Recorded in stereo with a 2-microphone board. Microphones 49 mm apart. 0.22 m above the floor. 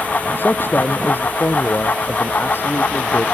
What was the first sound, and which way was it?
A man speaking, 45° left (ahead or behind).